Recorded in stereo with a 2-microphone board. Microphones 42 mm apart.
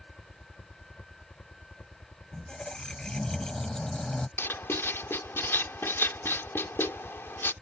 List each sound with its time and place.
0.0 s a helicopter: 45° left (ahead or behind)
2.3 s a squeak: 15° left (ahead or behind)
4.4 s writing: 75° left (ahead or behind)